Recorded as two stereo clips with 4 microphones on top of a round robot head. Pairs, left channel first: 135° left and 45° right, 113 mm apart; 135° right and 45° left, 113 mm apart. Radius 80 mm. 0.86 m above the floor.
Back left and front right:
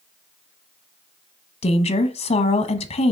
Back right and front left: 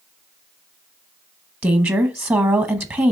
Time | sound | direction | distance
1.6 | a woman speaking | 115° left | 1.1 m